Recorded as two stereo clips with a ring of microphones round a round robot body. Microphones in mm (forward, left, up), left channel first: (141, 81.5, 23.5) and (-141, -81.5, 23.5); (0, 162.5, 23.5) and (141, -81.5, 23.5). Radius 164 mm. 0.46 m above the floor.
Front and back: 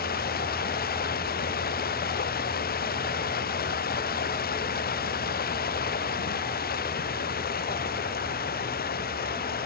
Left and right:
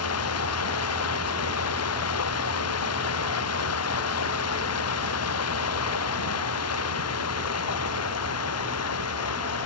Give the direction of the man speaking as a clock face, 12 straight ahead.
I don't hear a man speaking.